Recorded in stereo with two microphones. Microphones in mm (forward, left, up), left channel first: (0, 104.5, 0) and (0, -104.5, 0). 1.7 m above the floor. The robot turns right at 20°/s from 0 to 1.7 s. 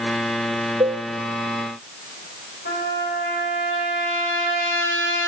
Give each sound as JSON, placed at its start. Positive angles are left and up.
{"t": 0.8, "sound": "a cowbell", "side_deg": -25, "distance_m": 1.0}
{"t": 2.6, "sound": "a trumpet", "side_deg": 70, "distance_m": 5.5}